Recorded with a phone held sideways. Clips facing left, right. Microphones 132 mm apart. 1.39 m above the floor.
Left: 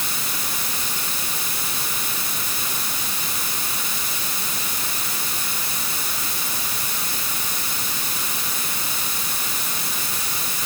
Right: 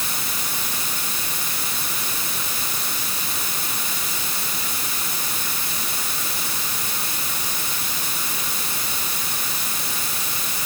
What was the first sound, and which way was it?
Only background noise.